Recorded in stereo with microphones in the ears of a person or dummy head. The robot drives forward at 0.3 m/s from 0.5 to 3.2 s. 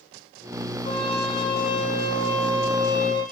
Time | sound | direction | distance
0.8 | a trumpet | 25° left (ahead or behind) | 9 m